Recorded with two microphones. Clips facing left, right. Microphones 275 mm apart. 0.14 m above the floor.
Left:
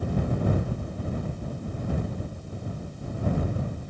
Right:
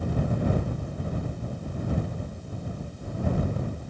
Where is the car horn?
No car horn in this recording.